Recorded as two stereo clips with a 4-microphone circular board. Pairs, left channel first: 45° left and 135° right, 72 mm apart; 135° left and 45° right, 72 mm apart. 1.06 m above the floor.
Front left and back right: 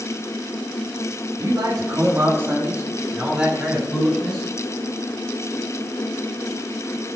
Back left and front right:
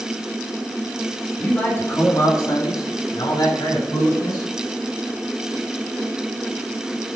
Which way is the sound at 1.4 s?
155° right.